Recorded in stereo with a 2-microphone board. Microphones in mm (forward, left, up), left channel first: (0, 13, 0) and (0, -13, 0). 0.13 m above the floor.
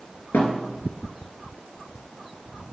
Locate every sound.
0.3 s a thud: 85° left, 3.5 m